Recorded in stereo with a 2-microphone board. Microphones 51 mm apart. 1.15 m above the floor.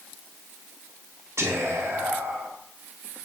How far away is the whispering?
About 0.5 m.